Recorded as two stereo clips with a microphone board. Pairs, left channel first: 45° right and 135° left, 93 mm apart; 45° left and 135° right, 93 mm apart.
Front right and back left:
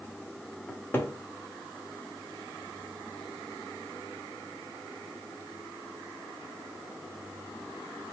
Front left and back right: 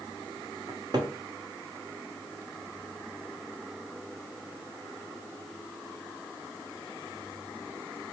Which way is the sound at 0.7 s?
110° right.